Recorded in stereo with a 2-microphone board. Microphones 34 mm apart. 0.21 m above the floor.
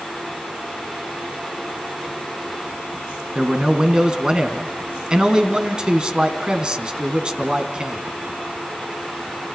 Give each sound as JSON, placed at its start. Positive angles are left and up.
{"t": 3.4, "sound": "a man speaking", "side_deg": -25, "distance_m": 2.5}